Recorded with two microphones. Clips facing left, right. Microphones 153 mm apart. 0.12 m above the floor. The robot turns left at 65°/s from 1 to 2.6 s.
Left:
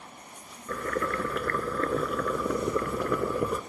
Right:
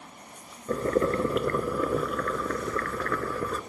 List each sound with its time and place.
0.7 s boiling: 110° right, 0.8 m; by 3.6 s 145° left, 0.8 m